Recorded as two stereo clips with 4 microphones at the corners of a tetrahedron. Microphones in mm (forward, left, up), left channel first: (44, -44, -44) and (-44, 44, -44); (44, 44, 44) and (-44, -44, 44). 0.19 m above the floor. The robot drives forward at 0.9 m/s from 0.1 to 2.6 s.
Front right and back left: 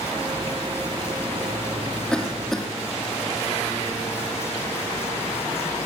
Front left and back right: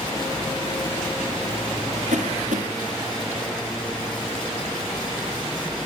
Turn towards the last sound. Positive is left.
turn(degrees=-130)